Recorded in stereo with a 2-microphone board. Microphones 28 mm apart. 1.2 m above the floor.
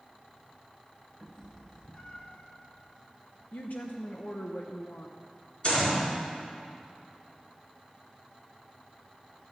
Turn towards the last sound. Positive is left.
turn(degrees=35)  # may be behind; listen again after turning